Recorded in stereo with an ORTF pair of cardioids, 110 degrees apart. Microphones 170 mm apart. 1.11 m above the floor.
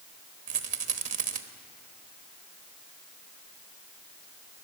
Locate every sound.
0.5 s a rattle: 50° right, 1.1 m